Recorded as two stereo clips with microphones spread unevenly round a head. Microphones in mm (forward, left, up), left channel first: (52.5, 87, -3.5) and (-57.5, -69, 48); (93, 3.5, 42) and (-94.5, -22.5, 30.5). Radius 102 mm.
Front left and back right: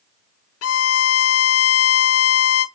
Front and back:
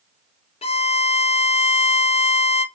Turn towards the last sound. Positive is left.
turn(degrees=70)